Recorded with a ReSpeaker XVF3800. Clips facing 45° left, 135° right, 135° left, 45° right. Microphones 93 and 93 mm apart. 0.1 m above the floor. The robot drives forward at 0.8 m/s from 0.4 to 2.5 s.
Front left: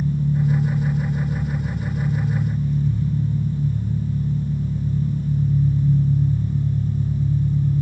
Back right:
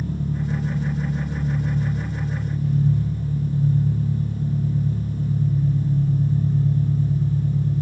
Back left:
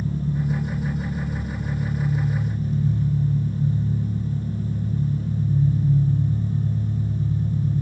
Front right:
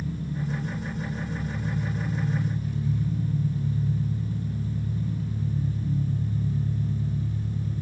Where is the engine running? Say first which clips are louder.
Front left 4 dB, back left 5 dB; 170° right, 9 m; by 7.8 s 175° right, 10.5 m.